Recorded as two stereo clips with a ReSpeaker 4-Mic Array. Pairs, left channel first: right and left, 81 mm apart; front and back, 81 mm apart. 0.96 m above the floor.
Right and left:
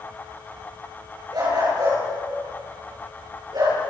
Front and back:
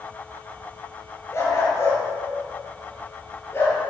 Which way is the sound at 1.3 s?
55° left.